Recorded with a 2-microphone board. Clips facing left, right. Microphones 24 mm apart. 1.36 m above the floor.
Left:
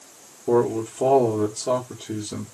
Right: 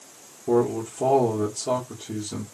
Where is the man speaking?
15° left (ahead or behind), 1.4 m.